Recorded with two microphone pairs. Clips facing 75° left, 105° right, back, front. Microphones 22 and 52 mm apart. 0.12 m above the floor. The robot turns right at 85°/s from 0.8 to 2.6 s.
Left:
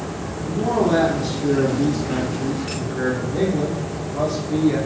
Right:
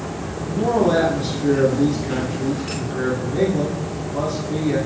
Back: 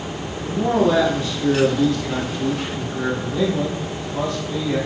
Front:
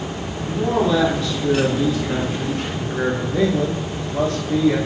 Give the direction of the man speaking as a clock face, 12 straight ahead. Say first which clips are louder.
Right 2 dB, back 1 dB; 6 o'clock.